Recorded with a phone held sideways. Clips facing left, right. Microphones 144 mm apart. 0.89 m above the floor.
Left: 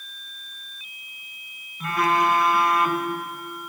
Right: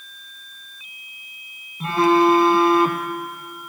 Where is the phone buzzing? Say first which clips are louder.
Right 6 dB; 30° right (ahead or behind), 0.6 m.